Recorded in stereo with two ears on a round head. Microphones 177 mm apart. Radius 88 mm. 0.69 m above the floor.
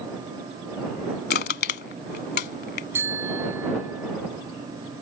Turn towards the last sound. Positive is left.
turn(degrees=-15)  # may be behind; listen again after turning